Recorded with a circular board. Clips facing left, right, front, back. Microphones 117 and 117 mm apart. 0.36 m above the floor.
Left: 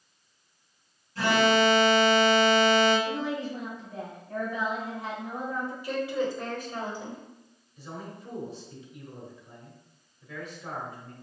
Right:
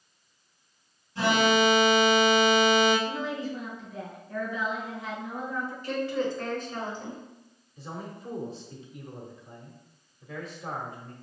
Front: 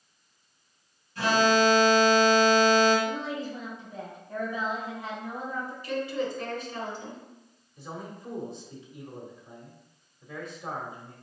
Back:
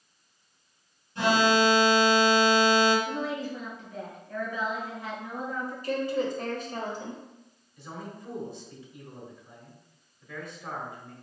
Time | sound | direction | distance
1.1 | an alarm | 145° right | 1.9 m
3.0 | a woman speaking | 60° left | 2.0 m
5.8 | a woman speaking | 165° left | 1.2 m
7.8 | a man speaking | 55° right | 1.1 m